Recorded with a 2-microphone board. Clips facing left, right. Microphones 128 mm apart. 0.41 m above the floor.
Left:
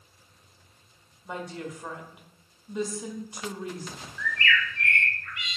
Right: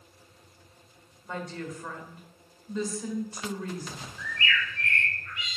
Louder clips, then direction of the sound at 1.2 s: Even; 15° left (ahead or behind).